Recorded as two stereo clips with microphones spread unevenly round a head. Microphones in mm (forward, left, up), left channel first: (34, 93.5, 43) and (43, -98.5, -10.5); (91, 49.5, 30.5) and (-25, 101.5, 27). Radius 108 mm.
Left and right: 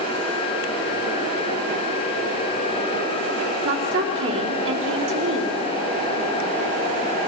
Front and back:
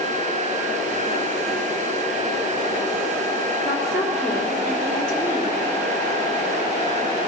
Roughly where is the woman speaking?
Behind right.